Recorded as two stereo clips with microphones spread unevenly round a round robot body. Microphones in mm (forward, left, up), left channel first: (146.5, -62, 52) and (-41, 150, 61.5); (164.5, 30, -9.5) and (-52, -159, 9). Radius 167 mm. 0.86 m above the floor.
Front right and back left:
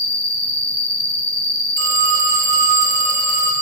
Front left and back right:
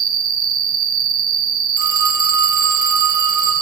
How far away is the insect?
About 1.5 m.